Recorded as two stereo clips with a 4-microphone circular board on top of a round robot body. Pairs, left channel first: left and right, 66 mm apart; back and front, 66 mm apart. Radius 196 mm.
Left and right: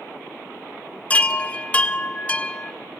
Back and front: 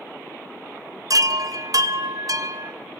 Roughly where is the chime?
Ahead.